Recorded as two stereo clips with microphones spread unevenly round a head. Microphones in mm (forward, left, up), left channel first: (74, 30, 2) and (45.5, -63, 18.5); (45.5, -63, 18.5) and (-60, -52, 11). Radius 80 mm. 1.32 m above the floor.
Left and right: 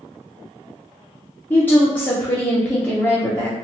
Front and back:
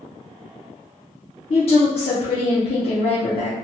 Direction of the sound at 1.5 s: 10° left.